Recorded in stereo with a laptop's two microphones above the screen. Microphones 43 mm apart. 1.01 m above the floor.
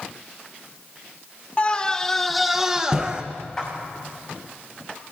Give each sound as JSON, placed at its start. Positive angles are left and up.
{"t": 1.6, "sound": "a scream", "side_deg": 30, "distance_m": 0.7}
{"t": 3.6, "sound": "a clap", "side_deg": 15, "distance_m": 7.0}